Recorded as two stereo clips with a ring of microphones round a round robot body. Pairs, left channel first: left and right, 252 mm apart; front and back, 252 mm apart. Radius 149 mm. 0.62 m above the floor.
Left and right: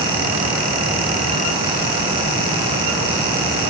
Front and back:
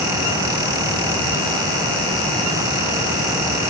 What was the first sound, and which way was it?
Only background noise.